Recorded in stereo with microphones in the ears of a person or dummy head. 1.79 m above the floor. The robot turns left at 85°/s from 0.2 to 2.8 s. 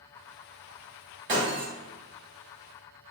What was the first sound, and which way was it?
Breaking glass, 25° right (ahead or behind).